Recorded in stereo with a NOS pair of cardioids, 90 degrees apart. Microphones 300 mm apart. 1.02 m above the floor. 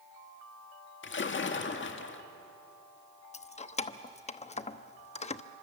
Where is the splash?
40° left, 1.8 m.